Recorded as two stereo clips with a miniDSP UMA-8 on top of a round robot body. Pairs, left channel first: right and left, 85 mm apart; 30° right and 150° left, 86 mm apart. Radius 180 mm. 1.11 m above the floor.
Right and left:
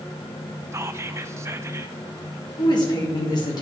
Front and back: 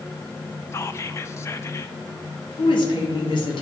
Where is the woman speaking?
50° right, 2.5 m.